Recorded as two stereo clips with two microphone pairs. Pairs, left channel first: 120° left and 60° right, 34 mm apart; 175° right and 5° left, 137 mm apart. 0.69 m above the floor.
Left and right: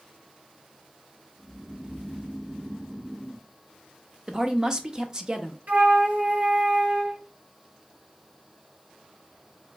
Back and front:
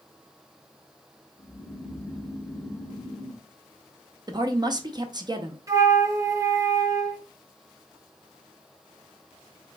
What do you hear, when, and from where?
1.4 s snoring: 100° right, 1.9 m
4.3 s a woman speaking: 15° right, 0.5 m
5.7 s a flute: 55° right, 0.9 m